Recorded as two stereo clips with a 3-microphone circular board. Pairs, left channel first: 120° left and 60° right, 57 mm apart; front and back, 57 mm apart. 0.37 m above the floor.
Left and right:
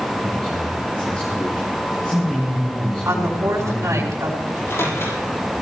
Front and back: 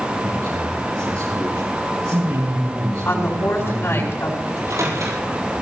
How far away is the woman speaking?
About 5 m.